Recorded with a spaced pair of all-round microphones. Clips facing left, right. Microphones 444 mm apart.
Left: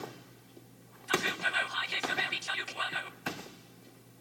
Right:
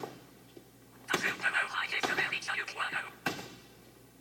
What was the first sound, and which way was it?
Whispering, 50° left (ahead or behind).